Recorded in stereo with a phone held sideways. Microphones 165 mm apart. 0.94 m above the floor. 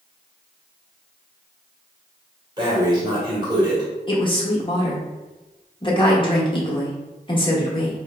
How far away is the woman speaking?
About 1.1 m.